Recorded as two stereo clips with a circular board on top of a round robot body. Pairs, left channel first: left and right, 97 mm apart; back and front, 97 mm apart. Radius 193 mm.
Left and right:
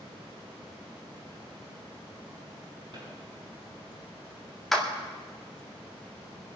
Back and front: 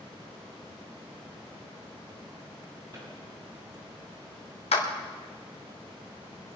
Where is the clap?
175° left, 2 m.